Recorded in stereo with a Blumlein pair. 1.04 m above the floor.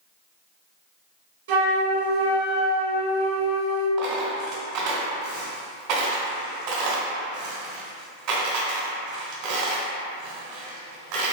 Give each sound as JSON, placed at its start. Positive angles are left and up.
{"t": 1.5, "sound": "a flute", "azimuth_deg": -55, "distance_m": 1.5}
{"t": 4.0, "sound": "a dropped coin", "azimuth_deg": -45, "distance_m": 1.7}